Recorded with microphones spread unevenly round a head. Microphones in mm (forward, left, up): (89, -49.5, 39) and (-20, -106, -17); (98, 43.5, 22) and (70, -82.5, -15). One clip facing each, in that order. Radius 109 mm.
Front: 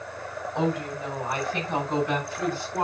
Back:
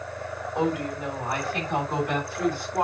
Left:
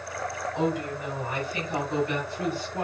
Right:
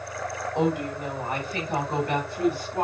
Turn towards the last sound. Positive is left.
turn(degrees=-70)